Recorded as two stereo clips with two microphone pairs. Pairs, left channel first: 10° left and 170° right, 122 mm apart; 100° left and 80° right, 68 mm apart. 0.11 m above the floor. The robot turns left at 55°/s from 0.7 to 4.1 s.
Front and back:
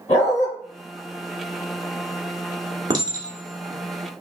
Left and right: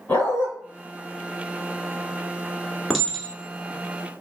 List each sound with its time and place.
0.1 s a dog barking: 35° left, 1.4 m
2.9 s a clink: 160° right, 0.8 m; by 4.2 s 130° left, 0.8 m